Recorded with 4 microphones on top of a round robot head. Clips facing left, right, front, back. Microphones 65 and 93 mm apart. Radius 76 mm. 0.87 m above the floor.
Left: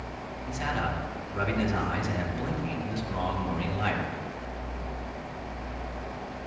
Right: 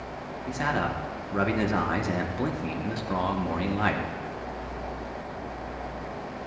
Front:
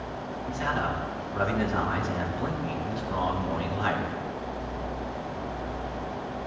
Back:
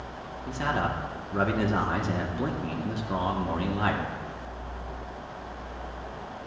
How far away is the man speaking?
About 1.6 m.